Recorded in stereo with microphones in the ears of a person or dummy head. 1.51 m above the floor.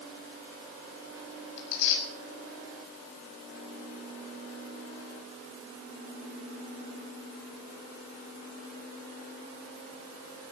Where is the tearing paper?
60° left (ahead or behind), 7 m.